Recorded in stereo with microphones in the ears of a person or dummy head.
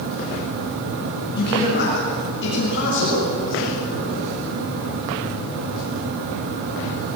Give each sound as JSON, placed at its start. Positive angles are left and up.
{"t": 1.3, "sound": "a man speaking", "side_deg": 50, "distance_m": 7.0}